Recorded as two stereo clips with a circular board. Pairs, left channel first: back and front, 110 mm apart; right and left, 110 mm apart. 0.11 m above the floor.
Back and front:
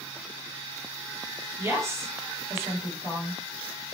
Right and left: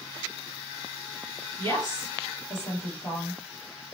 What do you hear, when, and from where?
1.6 s a woman speaking: 50° right, 2 m